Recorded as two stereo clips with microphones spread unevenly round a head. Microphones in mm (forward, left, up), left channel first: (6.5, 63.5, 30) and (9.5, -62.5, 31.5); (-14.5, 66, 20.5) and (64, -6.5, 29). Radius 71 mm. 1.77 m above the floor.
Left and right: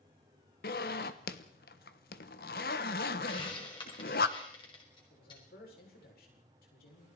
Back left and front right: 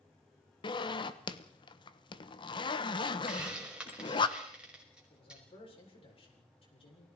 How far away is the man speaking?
About 8 m.